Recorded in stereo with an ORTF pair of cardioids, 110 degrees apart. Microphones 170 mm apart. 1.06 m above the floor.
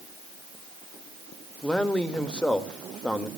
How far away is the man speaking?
About 1.8 m.